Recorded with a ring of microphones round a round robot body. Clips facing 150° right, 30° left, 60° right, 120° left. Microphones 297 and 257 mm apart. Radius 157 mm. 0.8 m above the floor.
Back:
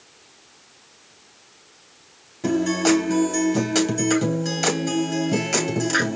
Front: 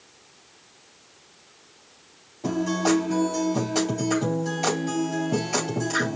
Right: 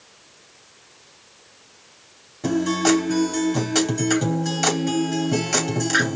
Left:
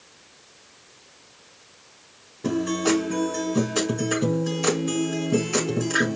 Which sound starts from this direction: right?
A guitar, at 2.4 s.